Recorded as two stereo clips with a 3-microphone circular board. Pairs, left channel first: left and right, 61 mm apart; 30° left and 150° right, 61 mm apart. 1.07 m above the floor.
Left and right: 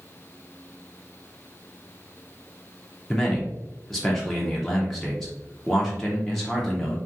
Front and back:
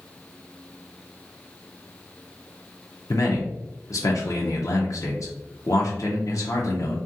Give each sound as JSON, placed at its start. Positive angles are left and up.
{"t": 3.1, "sound": "a man speaking", "azimuth_deg": 5, "distance_m": 0.5}